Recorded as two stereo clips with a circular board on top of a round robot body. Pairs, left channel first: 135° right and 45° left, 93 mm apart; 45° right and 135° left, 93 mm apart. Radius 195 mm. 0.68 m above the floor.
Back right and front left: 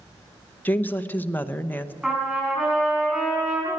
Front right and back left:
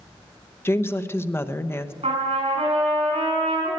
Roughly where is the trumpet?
Behind left.